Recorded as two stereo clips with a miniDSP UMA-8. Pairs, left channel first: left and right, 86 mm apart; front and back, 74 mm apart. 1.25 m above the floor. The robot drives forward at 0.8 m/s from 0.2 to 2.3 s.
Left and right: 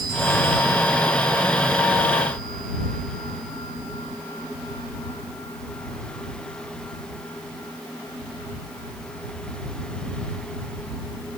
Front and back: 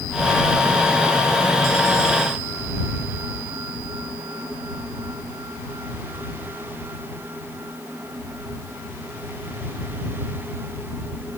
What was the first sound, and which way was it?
Only background noise.